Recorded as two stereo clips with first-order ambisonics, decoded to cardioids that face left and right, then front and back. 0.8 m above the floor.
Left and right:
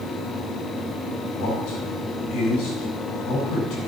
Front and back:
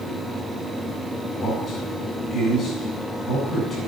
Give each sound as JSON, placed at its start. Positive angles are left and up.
{"t": 1.3, "sound": "a man speaking", "azimuth_deg": 70, "distance_m": 8.5}